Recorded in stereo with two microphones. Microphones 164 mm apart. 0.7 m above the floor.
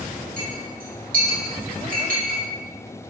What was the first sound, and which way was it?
A clink, 60° right (ahead or behind).